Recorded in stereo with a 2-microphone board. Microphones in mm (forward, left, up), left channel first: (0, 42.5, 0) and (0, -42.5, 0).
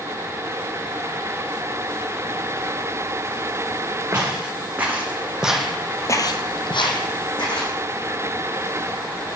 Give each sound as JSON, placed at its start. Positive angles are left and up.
{"t": 4.1, "sound": "footsteps", "side_deg": -25, "distance_m": 2.0}